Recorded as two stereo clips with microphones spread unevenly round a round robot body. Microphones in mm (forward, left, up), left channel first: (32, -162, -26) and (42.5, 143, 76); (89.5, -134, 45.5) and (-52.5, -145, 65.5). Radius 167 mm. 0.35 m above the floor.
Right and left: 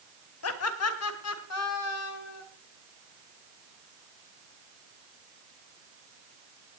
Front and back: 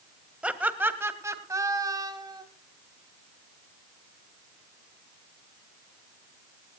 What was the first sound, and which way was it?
Laughter, 90° right.